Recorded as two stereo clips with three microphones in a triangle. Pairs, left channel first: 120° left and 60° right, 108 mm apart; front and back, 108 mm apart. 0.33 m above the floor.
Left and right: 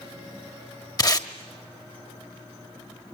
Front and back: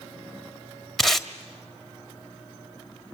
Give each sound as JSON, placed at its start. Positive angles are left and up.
{"t": 1.0, "sound": "tape being pulled", "azimuth_deg": 90, "distance_m": 1.5}